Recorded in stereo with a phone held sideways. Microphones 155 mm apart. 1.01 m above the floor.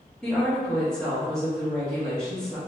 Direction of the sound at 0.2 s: 5° left (ahead or behind).